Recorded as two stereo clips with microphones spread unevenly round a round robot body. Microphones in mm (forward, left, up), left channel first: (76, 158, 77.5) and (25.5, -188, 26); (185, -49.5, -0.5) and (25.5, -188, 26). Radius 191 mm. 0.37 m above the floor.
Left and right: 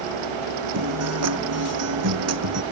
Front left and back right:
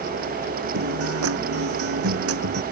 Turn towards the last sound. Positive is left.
turn(degrees=-150)